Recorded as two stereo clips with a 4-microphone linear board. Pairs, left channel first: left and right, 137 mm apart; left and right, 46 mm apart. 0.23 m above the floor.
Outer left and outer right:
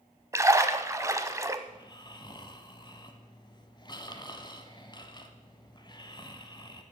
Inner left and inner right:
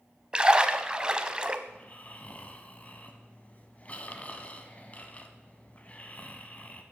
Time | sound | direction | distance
0.3 | a splash | 20° right (ahead or behind) | 0.6 m
1.7 | snoring | 30° left (ahead or behind) | 0.9 m